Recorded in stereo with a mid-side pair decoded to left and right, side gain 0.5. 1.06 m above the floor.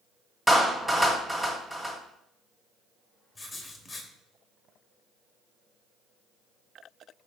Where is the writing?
20° left, 1.3 m.